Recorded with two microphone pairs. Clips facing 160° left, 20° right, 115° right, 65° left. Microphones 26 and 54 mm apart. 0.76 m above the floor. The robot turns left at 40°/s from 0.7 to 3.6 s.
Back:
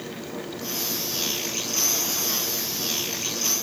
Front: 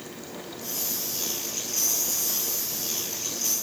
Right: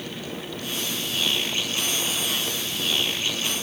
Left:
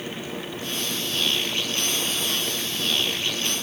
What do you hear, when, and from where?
Only background noise.